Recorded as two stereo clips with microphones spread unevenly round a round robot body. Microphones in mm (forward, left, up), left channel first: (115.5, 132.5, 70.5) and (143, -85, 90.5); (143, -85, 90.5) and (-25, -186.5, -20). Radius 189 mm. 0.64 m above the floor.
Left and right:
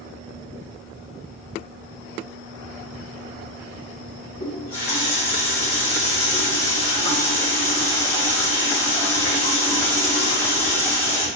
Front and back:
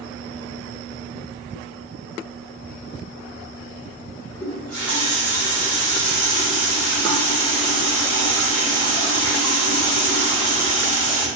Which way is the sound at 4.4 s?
140° left.